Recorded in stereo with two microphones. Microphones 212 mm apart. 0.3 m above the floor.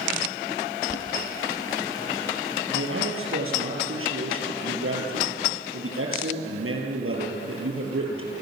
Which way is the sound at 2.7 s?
80° right.